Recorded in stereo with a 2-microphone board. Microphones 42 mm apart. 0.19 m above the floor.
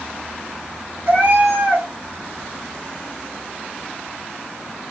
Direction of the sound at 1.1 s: 50° right (ahead or behind).